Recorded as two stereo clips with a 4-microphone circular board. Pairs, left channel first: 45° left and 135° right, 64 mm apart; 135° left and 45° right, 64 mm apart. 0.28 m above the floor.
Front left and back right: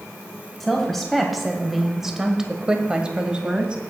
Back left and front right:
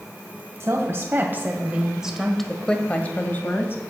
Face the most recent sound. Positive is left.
turn(degrees=155)